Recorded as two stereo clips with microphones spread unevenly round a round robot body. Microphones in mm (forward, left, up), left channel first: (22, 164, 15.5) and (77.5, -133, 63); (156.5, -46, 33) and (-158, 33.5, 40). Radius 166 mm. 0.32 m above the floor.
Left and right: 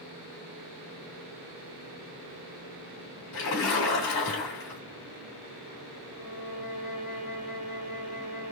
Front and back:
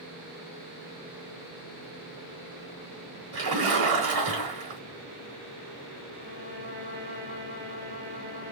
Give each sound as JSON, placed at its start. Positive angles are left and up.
{"t": 3.3, "sound": "a splash", "azimuth_deg": 120, "distance_m": 3.0}
{"t": 6.1, "sound": "a violin", "azimuth_deg": 90, "distance_m": 3.0}